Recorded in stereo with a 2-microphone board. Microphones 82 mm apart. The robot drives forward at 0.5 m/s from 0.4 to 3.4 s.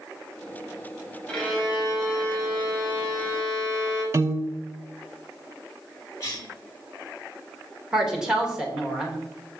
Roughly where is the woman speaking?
Centre.